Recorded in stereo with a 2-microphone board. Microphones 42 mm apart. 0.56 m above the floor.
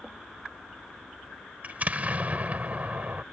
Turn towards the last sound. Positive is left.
turn(degrees=-35)  # may be behind; listen again after turning